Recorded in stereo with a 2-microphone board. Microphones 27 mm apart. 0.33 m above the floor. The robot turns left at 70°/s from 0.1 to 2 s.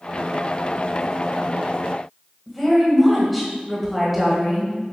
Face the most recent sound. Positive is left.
turn(degrees=0)  # may be behind; listen again after turning